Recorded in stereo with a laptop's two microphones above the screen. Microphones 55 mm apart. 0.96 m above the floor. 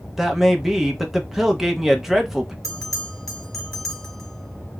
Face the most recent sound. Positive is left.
turn(degrees=5)  # may be behind; listen again after turning